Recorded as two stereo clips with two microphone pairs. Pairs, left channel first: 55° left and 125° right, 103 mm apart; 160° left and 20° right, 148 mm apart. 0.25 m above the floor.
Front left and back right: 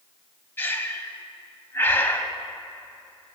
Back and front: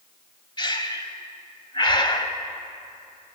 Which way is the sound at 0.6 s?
115° left.